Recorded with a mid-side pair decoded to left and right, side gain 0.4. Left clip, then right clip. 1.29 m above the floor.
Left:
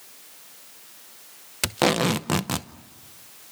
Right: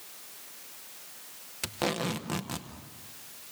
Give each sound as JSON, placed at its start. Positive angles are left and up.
{"t": 1.6, "sound": "tape being pulled", "azimuth_deg": 65, "distance_m": 0.8}